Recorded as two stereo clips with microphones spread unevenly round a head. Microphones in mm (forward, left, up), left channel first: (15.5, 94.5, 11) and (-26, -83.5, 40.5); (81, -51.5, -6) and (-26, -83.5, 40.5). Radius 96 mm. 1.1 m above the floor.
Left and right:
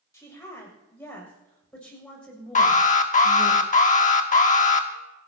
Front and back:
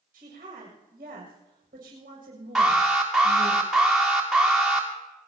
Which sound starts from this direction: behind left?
A woman speaking, at 0.1 s.